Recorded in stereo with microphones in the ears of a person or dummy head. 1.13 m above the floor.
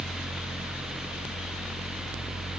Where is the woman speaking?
No woman speaking in this recording.